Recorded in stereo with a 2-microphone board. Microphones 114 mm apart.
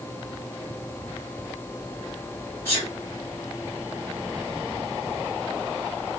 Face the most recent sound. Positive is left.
turn(degrees=25)  # may be behind; listen again after turning